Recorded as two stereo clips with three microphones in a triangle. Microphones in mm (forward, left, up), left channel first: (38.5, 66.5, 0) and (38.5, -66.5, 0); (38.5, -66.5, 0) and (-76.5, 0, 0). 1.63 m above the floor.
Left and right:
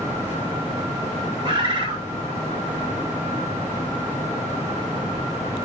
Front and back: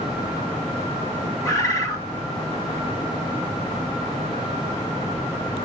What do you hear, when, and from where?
1.4 s a bird: 80° right, 1.2 m